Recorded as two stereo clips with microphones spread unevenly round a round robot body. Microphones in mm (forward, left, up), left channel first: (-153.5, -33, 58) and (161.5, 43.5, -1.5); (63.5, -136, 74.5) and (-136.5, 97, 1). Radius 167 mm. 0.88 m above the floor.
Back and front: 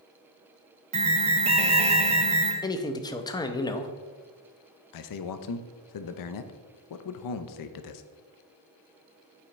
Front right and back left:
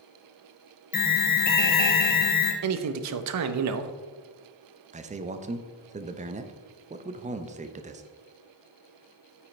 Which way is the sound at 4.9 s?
Straight behind.